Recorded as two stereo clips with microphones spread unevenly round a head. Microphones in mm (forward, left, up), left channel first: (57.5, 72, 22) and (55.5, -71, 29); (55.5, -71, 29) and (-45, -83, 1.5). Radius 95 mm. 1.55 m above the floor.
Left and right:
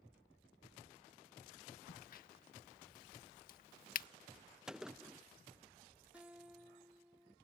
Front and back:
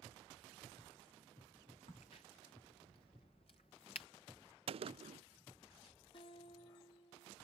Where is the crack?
70° left.